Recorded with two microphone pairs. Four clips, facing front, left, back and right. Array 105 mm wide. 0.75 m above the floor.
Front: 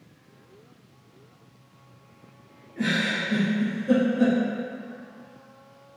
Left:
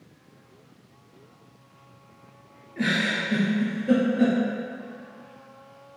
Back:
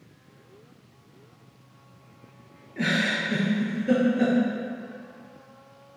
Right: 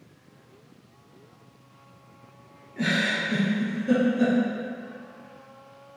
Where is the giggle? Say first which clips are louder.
Even, even; 140° left, 2 m.